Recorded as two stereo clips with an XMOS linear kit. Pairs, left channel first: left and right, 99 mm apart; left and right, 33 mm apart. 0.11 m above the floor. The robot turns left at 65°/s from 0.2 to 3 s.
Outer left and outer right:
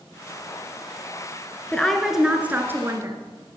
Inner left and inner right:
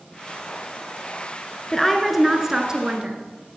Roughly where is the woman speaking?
Ahead.